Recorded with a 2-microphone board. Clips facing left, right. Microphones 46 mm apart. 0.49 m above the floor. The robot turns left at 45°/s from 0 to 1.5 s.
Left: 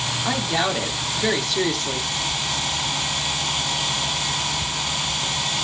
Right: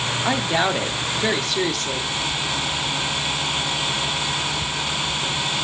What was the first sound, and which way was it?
A woman speaking, 20° right (ahead or behind).